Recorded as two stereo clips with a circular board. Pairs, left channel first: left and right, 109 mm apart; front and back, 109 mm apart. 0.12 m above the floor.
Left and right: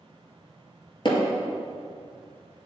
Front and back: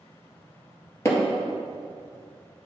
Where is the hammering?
60° left, 2 m.